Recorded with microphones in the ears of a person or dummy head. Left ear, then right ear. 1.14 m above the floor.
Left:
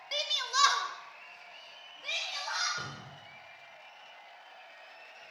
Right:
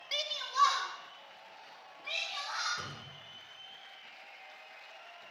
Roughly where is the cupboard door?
Left.